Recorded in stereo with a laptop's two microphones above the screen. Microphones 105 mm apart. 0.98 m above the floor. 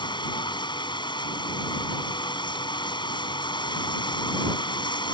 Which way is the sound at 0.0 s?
45° left (ahead or behind).